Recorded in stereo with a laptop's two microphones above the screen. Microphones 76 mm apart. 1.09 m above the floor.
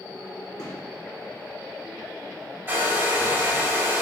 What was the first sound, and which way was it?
A gunshot, 55° left (ahead or behind).